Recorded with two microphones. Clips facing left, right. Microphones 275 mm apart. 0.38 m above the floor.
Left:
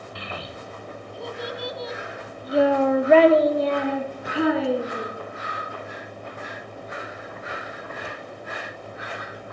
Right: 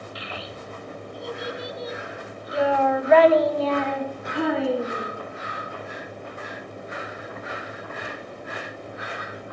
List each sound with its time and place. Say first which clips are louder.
0.1 s a child speaking: left 3 dB; 55° left (ahead or behind), 2.5 m; by 5.1 s 5° right (ahead or behind), 2.5 m